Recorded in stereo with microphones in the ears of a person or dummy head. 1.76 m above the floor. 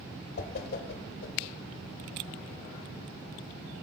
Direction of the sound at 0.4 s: 60° left (ahead or behind).